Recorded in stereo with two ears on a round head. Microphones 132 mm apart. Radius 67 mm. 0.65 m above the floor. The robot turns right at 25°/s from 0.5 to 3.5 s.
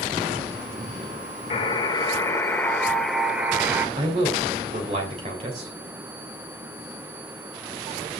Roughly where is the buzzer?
Behind left.